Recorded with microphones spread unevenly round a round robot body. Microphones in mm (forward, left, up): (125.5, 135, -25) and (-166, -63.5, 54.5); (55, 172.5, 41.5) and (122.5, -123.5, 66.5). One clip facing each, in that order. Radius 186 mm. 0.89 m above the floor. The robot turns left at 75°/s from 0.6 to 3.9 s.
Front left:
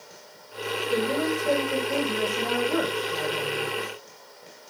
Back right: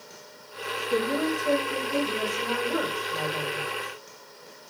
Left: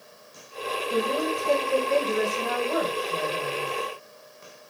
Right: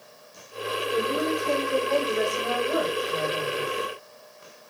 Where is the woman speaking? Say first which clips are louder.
Even, even; 115° left, 2.0 m; by 3.7 s 95° right, 2.0 m.